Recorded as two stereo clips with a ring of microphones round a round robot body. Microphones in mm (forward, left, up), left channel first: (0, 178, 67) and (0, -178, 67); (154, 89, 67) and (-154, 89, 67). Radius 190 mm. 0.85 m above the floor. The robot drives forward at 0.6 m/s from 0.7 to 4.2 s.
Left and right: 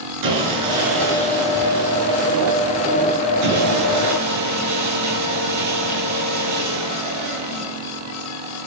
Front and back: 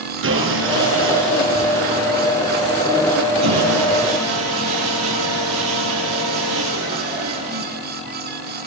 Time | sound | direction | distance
0.2 | sawing | 125° right | 10 m